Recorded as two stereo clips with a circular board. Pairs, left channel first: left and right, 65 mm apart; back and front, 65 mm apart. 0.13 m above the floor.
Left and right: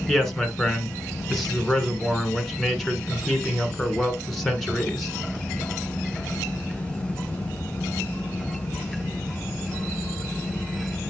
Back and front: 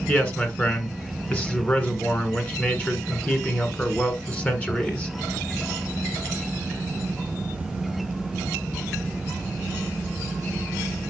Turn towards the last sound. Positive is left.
turn(degrees=170)